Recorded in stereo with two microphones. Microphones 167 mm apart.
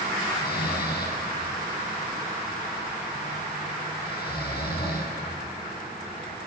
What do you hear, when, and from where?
0.3 s snoring: 80° left, 5 m